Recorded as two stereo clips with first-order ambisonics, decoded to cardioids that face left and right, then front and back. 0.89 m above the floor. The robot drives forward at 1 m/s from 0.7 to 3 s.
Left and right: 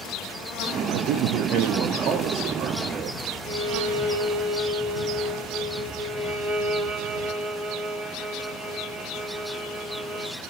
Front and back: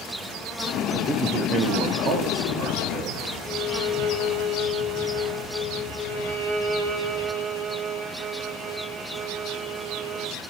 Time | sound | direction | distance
0.9 | a man speaking | 85° right | 0.9 m
3.4 | a violin | 140° right | 3 m
6.1 | a violin | 170° left | 2.5 m